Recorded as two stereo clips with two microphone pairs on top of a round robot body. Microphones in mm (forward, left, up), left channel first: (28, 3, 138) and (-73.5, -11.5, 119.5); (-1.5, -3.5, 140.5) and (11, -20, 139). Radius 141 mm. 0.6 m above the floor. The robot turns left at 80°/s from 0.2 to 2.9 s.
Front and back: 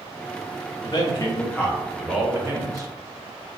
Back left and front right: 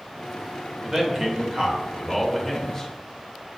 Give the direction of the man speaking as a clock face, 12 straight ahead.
12 o'clock.